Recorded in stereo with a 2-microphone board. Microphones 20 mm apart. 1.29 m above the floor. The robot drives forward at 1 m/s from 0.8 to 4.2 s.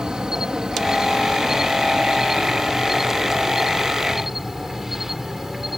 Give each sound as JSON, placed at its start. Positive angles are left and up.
{"t": 0.0, "sound": "an insect", "side_deg": -35}